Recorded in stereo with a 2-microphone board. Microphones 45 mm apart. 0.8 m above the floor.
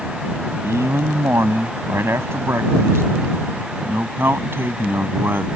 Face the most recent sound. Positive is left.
turn(degrees=-55)  # may be behind; listen again after turning